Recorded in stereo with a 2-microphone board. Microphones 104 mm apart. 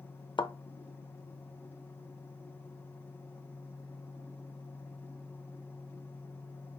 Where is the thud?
50° left (ahead or behind), 0.5 m.